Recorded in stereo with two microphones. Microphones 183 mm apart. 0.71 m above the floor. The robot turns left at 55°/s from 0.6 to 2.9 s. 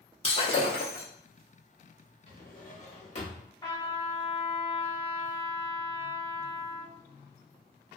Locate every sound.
0.2 s breaking glass: 35° left (ahead or behind), 0.9 m; by 1.1 s 50° left (ahead or behind), 0.9 m
2.3 s a drawer: 75° left, 0.9 m; by 3.5 s 40° left, 0.9 m
3.6 s a trumpet: 20° left (ahead or behind), 1.5 m